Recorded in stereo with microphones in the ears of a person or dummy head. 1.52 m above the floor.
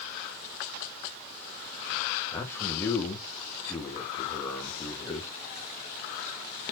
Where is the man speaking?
10° left (ahead or behind), 2.5 m.